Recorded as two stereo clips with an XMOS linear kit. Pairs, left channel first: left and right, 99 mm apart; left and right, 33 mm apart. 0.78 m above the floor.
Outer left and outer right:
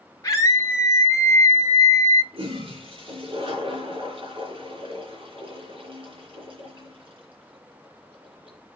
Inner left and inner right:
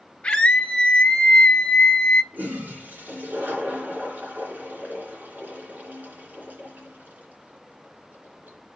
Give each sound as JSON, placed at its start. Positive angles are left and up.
{"t": 0.2, "sound": "a scream", "side_deg": 35, "distance_m": 1.7}
{"t": 2.3, "sound": "a toilet flushing", "side_deg": -65, "distance_m": 3.0}